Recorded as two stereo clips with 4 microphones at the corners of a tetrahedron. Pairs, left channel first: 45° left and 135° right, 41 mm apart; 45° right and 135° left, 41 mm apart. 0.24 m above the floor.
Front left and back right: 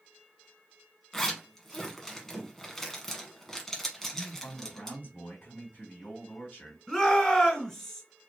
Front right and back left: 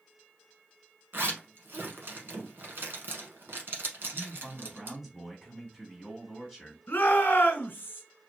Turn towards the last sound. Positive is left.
turn(degrees=-45)